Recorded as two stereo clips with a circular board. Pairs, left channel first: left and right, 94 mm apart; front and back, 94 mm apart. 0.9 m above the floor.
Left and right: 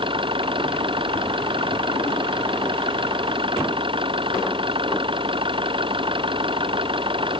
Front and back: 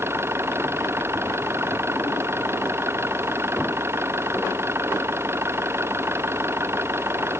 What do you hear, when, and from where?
0.0 s an engine running: 115° right